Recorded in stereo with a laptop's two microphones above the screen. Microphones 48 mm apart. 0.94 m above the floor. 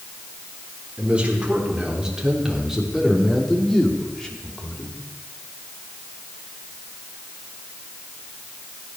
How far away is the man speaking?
About 3.5 m.